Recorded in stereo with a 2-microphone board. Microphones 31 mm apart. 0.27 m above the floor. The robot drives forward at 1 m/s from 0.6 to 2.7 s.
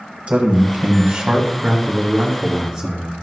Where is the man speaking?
40° right (ahead or behind), 1.6 m; by 3.2 s 20° right (ahead or behind), 3 m.